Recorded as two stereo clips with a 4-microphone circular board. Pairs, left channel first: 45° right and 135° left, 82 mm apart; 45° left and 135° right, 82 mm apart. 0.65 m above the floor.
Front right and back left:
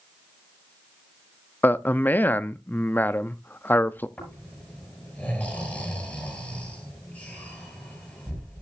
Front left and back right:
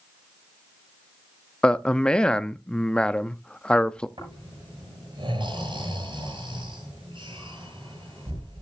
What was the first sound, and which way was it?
A man speaking, 20° right.